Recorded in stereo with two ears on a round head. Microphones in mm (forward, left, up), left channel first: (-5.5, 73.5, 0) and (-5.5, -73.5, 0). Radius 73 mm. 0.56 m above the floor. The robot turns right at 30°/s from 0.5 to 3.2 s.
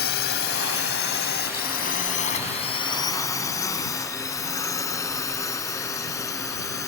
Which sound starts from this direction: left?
A drone, at 0.0 s.